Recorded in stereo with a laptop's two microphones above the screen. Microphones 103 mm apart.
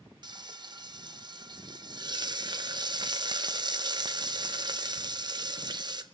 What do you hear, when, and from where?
0.2 s frying: 45° right (ahead or behind), 0.6 m